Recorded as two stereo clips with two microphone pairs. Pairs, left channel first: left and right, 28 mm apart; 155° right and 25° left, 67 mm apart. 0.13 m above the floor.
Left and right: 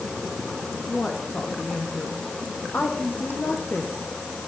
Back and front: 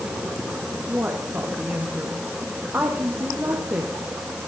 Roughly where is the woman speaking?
Left.